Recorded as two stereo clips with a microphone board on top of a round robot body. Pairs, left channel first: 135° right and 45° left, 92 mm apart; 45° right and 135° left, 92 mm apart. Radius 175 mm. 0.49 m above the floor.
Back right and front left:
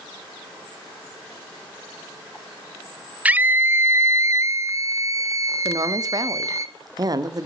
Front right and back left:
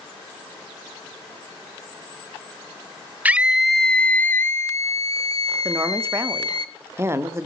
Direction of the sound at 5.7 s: 80° left.